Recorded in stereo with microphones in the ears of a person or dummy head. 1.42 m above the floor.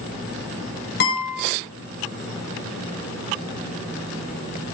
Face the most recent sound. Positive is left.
turn(degrees=65)  # may be behind; listen again after turning